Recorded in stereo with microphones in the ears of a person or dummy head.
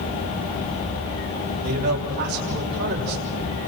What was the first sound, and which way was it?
A man speaking, 55° right (ahead or behind).